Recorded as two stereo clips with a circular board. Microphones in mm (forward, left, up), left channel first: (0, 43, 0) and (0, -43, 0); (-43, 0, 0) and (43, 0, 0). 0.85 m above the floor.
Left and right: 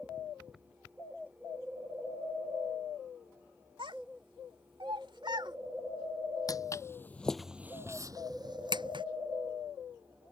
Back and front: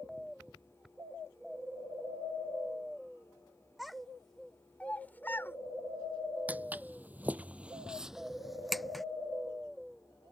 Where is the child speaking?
90° right; by 5.6 s 120° right.